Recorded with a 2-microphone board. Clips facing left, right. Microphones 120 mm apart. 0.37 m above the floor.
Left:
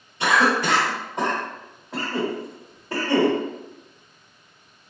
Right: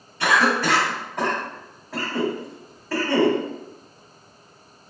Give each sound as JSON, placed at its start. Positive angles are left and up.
{"t": 0.2, "sound": "a cough", "side_deg": 20, "distance_m": 1.1}